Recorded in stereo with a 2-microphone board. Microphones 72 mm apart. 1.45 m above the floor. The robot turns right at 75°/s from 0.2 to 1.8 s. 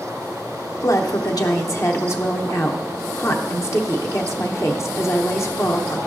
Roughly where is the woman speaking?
Ahead left.